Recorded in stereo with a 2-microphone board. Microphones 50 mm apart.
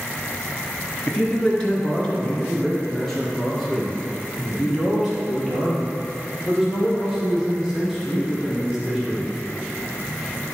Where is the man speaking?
25° left (ahead or behind), 1.9 m; by 9.2 s 10° right (ahead or behind), 5.5 m.